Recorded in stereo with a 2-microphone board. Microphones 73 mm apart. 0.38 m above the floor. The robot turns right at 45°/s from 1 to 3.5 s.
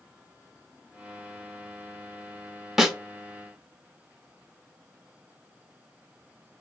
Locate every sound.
2.8 s a snare drum: 5° right (ahead or behind), 0.7 m; by 3.0 s centre (ahead or behind), 0.7 m